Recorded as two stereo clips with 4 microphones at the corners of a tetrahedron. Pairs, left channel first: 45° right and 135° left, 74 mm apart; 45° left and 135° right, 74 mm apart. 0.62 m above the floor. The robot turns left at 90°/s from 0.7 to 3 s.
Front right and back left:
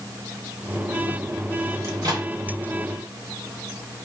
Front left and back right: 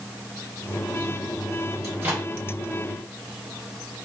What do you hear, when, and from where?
1.8 s a microwave: straight behind, 1.0 m; by 2.3 s 140° left, 1.0 m